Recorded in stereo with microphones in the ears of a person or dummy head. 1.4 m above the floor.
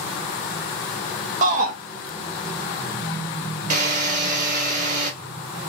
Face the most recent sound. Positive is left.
turn(degrees=-50)  # may be behind; listen again after turning